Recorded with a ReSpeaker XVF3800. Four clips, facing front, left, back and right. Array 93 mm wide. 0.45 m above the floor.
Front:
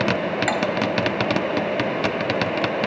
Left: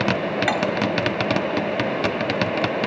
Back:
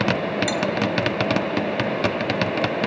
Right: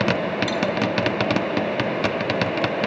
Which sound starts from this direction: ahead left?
Cutlery clinking, at 0.5 s.